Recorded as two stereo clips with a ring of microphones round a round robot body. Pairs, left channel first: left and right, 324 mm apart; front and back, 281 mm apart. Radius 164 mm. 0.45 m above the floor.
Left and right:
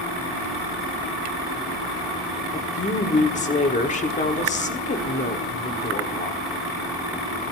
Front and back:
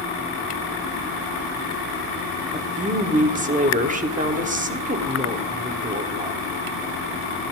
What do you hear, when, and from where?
2.5 s a woman speaking: 140° left, 1.4 m